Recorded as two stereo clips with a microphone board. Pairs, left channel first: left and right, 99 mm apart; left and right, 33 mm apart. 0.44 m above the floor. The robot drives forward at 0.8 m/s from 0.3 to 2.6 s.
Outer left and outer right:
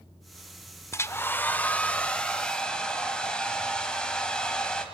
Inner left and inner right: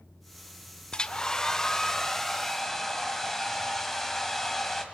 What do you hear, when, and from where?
0.9 s a hair dryer: 30° left (ahead or behind), 0.5 m; by 4.8 s 10° left (ahead or behind), 1.6 m